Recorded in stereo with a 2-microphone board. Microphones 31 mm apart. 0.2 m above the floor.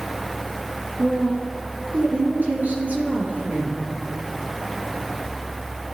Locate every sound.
1.0 s a woman speaking: 65° right (ahead or behind), 3.5 m